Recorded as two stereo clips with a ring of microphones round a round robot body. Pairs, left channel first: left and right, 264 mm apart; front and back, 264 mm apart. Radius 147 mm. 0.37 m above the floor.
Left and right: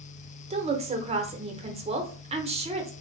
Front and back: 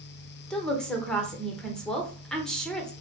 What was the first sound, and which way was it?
A woman speaking, 85° right.